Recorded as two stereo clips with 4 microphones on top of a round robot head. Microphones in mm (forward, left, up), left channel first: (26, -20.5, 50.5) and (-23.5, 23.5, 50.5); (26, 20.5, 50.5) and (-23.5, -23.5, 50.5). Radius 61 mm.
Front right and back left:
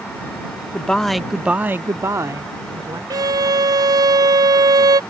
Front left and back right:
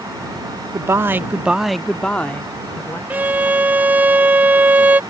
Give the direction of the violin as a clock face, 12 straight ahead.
7 o'clock.